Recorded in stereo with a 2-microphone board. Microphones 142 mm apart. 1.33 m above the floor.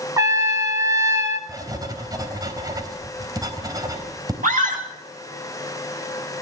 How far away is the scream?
About 10 m.